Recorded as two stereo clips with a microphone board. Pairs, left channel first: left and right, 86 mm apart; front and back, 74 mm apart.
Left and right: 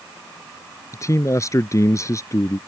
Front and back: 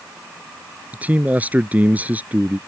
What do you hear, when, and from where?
0.9 s a man speaking: 120° left